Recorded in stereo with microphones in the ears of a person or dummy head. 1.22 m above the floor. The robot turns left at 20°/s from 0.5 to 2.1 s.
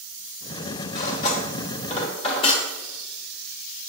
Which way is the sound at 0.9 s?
50° left (ahead or behind).